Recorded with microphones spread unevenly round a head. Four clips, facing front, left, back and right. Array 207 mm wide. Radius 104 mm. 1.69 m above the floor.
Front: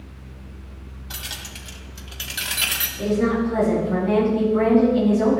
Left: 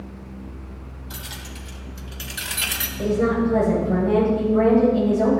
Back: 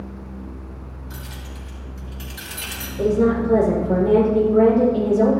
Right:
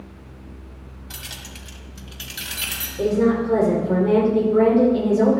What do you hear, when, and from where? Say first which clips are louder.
1.1 s keys jangling: left 2 dB, front 3 dB; 30° right, 3.5 m; by 2.9 s 20° left, 3 m
3.0 s a woman speaking: right 2 dB, back 3 dB; 130° right, 5.5 m